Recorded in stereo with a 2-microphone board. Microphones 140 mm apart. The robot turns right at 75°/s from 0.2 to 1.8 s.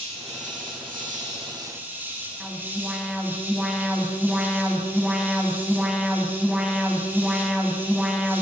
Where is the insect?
135° right, 8 m; by 8.4 s 15° right, 8 m.